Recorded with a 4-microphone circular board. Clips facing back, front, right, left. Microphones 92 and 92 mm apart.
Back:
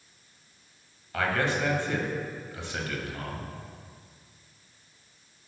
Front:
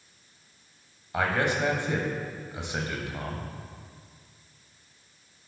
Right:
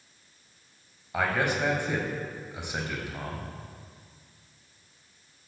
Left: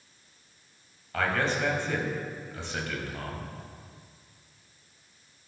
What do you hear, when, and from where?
1.1 s a man speaking: 40° right, 1.4 m